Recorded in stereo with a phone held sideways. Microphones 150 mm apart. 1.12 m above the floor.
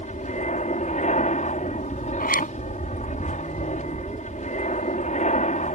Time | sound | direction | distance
0.0 | an aircraft | 55° left (ahead or behind) | ?
2.2 | a zipper | 70° left (ahead or behind) | ?